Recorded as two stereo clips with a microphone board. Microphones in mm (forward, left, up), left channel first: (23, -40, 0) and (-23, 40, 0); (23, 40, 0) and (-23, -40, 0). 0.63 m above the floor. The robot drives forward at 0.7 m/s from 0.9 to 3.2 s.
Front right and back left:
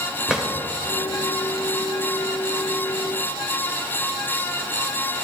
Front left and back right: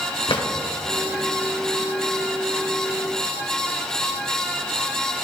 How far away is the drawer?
About 1.5 m.